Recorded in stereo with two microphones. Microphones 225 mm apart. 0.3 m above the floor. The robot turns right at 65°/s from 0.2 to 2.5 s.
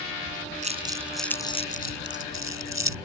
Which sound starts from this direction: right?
Crumpling, at 0.6 s.